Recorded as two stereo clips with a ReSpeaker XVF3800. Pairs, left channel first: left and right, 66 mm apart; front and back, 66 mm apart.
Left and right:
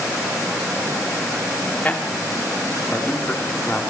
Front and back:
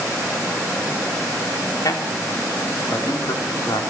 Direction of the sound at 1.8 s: 20° left.